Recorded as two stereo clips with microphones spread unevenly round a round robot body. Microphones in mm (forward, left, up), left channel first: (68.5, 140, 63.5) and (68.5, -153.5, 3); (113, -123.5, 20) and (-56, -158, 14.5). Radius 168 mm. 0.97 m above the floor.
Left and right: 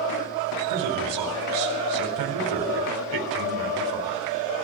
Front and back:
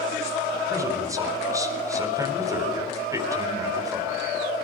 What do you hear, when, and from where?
0.7 s a man speaking: 100° right, 4 m